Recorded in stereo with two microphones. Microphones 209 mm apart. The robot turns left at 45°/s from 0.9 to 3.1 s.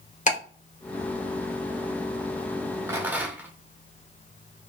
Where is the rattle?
15° right (ahead or behind), 0.7 m; by 3.5 s 10° right (ahead or behind), 0.7 m.